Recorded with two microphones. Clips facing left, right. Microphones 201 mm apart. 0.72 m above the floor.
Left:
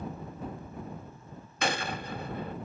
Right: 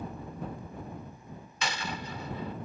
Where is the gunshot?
55° left (ahead or behind).